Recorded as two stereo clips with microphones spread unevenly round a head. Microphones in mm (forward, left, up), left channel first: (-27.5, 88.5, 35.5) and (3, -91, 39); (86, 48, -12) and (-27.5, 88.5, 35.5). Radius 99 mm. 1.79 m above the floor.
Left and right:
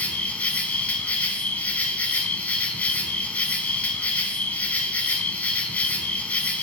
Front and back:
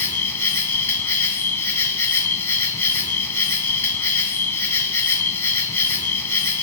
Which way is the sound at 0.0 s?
20° left.